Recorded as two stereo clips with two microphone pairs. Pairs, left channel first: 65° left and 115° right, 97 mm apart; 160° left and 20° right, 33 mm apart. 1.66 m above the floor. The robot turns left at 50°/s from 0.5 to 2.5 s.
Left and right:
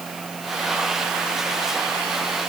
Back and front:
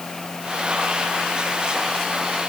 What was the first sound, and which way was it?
Only background noise.